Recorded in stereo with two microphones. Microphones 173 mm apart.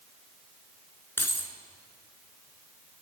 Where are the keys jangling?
15° left (ahead or behind), 1.4 m.